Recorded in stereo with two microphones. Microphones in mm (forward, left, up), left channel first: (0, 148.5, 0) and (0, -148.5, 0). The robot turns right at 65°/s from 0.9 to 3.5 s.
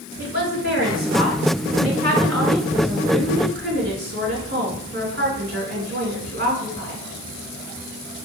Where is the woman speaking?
80° left, 1.6 m; by 7.0 s 110° right, 1.6 m.